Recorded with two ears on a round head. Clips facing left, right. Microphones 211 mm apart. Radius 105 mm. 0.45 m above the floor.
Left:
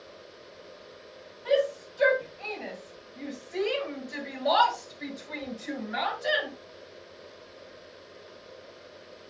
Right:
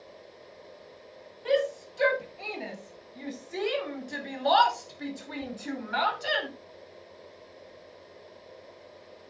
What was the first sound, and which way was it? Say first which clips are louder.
A shout: left 1 dB; 45° right (ahead or behind).